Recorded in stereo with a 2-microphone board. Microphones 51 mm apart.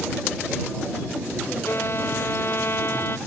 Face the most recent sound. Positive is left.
turn(degrees=50)  # may be behind; listen again after turning